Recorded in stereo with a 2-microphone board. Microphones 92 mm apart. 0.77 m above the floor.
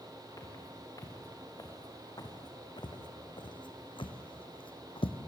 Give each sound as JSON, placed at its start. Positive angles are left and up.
{"t": 0.4, "sound": "footsteps", "side_deg": 40, "distance_m": 4.5}